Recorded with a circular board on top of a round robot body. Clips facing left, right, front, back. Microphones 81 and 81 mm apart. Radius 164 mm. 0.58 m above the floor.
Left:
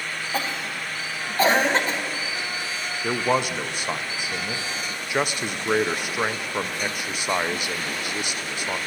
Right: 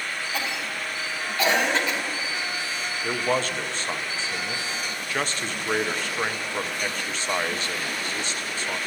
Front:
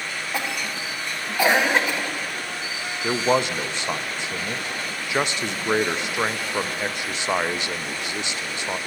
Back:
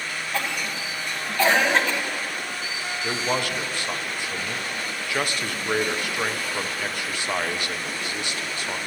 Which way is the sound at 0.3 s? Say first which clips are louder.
Left 4 dB, even; 70° left.